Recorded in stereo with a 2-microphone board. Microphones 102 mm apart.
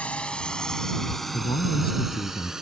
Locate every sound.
0.0 s a drone: 10° left (ahead or behind); by 2.6 s 5° right (ahead or behind)
1.3 s a man speaking: 55° left (ahead or behind)